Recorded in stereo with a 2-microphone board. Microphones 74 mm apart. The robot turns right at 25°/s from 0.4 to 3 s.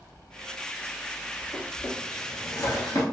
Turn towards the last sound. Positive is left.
turn(degrees=50)  # may be behind; listen again after turning